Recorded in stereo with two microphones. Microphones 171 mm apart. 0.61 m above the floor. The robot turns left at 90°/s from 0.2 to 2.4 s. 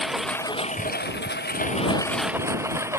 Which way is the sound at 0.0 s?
Straight behind.